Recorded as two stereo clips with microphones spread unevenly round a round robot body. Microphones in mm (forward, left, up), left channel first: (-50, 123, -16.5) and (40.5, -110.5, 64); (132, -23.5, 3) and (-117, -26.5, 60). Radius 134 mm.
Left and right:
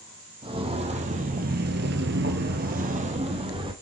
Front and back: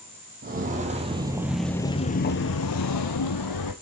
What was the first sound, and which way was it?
Footsteps, 130° right.